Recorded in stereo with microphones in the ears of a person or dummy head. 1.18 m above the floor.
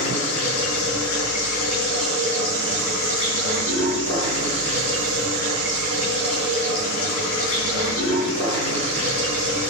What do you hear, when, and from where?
0.0 s running water: 85° left, 6 m